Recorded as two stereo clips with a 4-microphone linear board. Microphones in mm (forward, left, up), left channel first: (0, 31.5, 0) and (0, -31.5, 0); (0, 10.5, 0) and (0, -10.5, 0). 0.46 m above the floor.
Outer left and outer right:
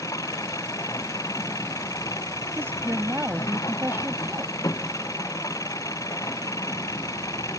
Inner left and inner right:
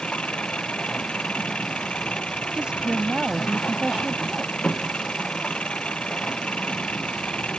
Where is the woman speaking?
40° right (ahead or behind).